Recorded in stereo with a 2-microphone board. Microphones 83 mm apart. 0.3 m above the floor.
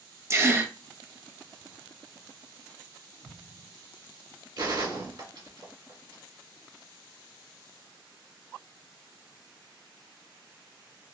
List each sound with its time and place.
0.3 s a gasp: 30° right (ahead or behind), 0.6 m
3.2 s an explosion: 65° right (ahead or behind), 3 m
4.6 s a gunshot: 65° right (ahead or behind), 2 m